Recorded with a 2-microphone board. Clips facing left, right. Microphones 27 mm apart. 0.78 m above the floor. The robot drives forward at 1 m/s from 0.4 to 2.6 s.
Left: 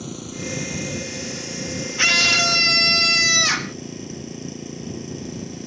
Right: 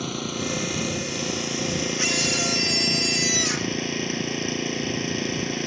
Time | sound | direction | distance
0.0 | an engine running | 40° right (ahead or behind) | ?
2.0 | a scream | 40° left (ahead or behind) | ?